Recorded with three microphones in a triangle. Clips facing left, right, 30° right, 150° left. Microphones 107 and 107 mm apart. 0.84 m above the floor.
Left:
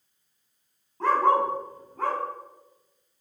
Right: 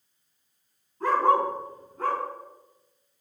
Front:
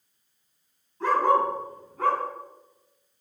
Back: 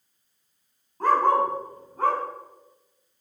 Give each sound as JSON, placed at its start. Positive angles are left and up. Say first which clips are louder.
{"t": 1.0, "sound": "a dog barking", "louder": "even, back 1 dB", "azimuth_deg": 105, "distance_m": 3.0}